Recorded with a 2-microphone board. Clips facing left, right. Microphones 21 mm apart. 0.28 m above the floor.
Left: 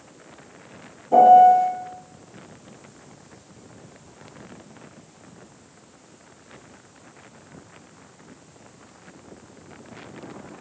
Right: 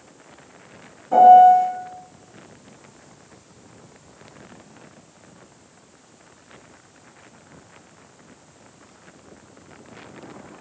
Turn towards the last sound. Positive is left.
turn(degrees=-30)  # may be behind; listen again after turning